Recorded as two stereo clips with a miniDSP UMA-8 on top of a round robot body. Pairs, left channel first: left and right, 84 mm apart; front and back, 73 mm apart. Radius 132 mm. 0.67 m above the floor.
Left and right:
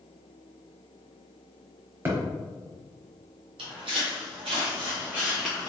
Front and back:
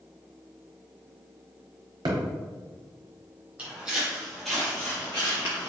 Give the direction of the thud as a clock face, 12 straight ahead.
5 o'clock.